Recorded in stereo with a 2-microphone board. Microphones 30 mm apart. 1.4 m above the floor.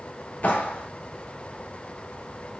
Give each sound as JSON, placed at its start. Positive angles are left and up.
{"t": 0.4, "sound": "a clap", "side_deg": 60, "distance_m": 3.5}